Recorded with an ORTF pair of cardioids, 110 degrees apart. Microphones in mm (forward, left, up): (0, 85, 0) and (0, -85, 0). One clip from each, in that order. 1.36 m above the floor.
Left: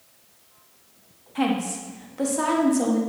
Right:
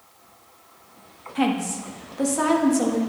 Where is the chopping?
No chopping in this recording.